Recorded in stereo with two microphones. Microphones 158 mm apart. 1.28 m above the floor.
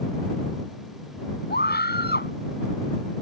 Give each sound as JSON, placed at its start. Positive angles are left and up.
{"t": 1.5, "sound": "a scream", "side_deg": 80}